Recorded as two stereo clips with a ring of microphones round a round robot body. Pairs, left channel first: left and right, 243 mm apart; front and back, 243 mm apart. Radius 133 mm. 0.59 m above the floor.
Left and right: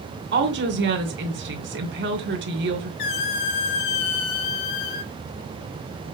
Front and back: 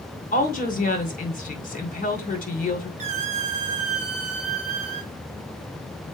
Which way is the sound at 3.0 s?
115° left.